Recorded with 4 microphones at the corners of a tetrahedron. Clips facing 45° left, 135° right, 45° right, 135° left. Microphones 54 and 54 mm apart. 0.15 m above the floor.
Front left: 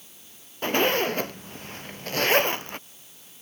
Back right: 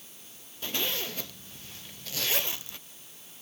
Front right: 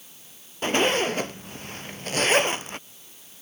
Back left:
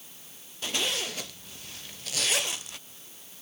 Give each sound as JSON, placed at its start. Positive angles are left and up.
{"t": 0.6, "sound": "a zipper", "azimuth_deg": 5}